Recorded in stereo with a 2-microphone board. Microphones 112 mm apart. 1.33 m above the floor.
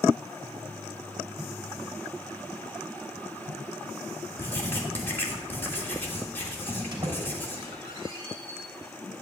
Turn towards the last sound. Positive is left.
turn(degrees=-40)  # may be behind; listen again after turning